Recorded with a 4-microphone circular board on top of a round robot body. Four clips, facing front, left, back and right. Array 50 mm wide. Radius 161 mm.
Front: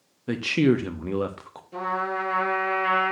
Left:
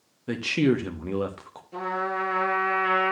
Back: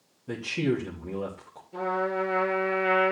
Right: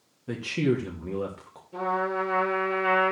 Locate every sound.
0.3 s a man speaking: 25° left, 1.4 m
1.7 s a trumpet: 30° left, 7 m